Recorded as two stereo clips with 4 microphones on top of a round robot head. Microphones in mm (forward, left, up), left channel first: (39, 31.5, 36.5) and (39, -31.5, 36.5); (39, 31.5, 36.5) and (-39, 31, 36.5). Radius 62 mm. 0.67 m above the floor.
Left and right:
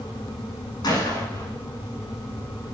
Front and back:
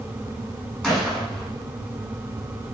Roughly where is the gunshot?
Left.